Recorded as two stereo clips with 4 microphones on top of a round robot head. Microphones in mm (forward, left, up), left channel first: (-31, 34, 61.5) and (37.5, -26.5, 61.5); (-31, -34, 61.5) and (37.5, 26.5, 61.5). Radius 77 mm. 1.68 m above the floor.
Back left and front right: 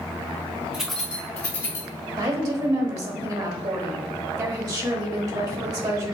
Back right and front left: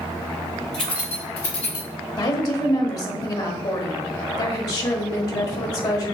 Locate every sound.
0.7 s keys jangling: 110° right, 0.6 m; by 1.9 s 170° right, 1.4 m
2.2 s a woman speaking: 90° right, 1.3 m